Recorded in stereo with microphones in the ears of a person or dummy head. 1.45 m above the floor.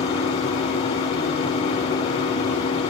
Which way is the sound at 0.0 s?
30° left (ahead or behind).